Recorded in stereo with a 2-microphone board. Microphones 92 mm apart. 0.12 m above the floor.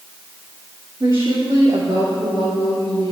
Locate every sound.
1.0 s a woman speaking: 40° right (ahead or behind), 2.5 m; by 3.1 s 55° right (ahead or behind), 2.5 m